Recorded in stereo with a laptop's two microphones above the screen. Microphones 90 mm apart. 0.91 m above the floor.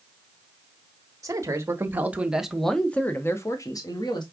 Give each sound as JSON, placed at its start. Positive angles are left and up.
{"t": 1.2, "sound": "a man speaking", "side_deg": -35, "distance_m": 1.1}